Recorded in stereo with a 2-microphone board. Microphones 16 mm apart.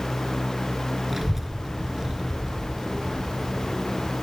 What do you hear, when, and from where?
1.1 s a child speaking: 15° right (ahead or behind), 1.1 m; by 4.1 s 60° right (ahead or behind), 1.8 m